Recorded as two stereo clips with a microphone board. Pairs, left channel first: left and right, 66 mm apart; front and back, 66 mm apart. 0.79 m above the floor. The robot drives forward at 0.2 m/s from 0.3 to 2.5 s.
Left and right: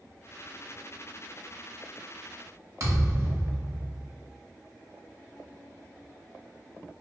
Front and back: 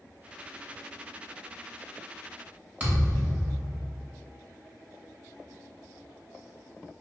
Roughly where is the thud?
Behind right.